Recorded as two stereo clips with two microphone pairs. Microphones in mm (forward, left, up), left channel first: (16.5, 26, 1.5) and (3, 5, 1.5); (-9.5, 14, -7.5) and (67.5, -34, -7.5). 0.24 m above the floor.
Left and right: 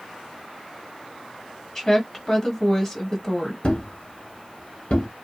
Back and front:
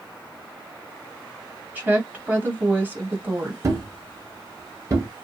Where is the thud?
20° left, 1.0 m.